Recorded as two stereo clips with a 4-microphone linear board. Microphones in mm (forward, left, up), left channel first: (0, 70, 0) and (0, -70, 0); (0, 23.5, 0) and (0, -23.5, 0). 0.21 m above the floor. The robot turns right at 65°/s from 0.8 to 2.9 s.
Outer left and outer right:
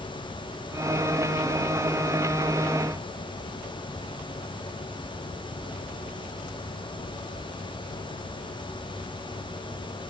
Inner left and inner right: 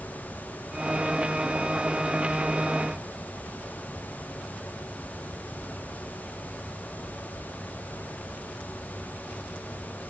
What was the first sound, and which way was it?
Only background noise.